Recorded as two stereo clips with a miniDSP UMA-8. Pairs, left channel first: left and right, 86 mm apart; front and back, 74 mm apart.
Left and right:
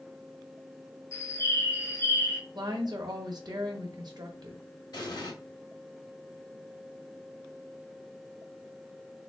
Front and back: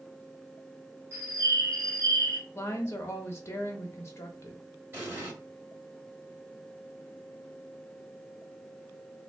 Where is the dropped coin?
I don't hear a dropped coin.